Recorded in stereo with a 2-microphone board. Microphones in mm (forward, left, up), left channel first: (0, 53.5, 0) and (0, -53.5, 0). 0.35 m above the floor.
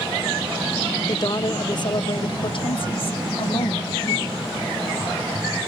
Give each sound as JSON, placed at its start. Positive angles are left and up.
{"t": 1.1, "sound": "a woman speaking", "side_deg": 40, "distance_m": 1.4}